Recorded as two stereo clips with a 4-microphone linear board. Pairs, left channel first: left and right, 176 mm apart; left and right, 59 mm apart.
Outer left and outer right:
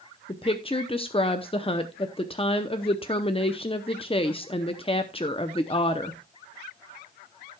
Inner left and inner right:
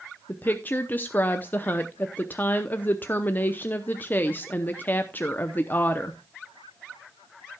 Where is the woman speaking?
30° left (ahead or behind), 0.7 m.